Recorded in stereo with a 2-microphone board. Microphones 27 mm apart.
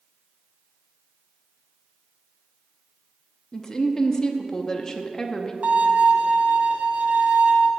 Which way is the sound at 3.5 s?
20° left (ahead or behind).